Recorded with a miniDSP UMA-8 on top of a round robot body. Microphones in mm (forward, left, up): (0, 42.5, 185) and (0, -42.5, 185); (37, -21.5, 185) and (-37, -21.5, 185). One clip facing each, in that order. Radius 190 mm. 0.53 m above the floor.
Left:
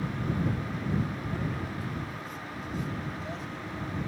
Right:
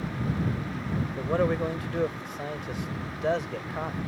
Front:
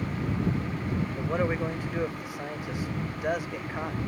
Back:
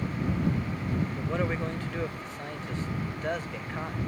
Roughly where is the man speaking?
Right.